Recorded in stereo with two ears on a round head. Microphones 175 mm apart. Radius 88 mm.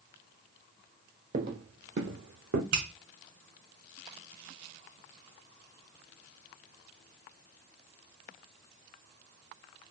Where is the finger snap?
70° right (ahead or behind), 2.5 m.